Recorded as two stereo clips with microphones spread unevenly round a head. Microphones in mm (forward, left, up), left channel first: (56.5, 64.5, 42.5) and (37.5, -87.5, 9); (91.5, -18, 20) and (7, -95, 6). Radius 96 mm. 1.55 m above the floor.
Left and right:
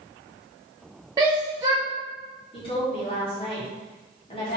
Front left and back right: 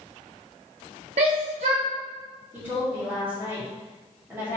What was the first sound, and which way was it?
A shout, 170° right.